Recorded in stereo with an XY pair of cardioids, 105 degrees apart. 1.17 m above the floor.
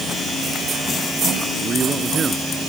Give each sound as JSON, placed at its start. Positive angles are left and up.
{"t": 1.6, "sound": "a man speaking", "azimuth_deg": -40}